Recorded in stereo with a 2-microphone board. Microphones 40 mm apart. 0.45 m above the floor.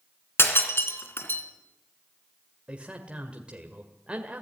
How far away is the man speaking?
About 1.9 m.